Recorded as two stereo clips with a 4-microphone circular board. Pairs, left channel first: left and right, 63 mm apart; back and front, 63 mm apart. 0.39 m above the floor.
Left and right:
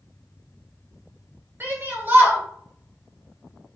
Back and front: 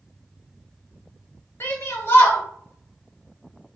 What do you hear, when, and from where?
1.6 s a shout: 140° right, 1.8 m